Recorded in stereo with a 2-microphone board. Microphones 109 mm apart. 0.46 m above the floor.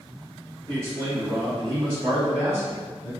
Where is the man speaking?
35° right (ahead or behind), 1.4 m; by 3.1 s 20° right (ahead or behind), 1.9 m.